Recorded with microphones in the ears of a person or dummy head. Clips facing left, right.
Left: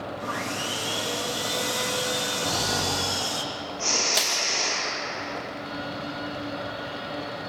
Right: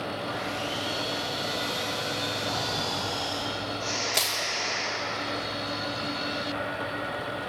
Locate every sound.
0.2 s sawing: 70° left (ahead or behind), 1.9 m
2.4 s snoring: 70° left (ahead or behind), 6 m
4.1 s crushing: 5° left (ahead or behind), 2 m